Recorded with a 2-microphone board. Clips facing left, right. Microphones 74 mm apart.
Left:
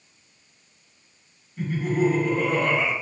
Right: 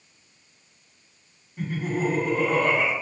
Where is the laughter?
Centre (ahead or behind), 2.0 m.